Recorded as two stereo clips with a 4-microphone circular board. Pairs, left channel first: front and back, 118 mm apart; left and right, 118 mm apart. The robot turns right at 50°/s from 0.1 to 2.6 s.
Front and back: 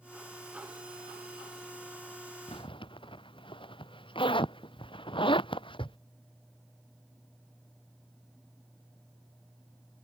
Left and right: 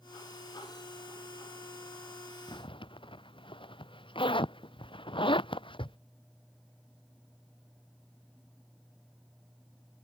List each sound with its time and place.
2.5 s a zipper: 40° left; by 6.0 s 45° left